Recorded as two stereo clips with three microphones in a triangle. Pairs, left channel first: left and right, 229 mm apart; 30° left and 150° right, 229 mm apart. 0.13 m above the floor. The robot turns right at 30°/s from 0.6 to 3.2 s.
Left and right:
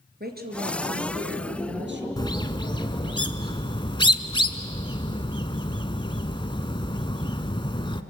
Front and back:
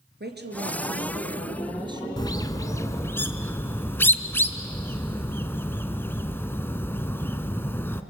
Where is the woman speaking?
125° right, 2.5 m; by 2.1 s 80° right, 2.5 m.